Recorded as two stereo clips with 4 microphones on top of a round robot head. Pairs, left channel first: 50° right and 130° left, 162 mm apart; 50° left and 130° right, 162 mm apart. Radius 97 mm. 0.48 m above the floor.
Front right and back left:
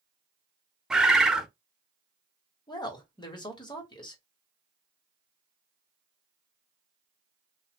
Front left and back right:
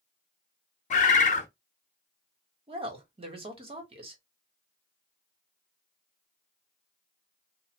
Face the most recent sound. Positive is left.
turn(degrees=-95)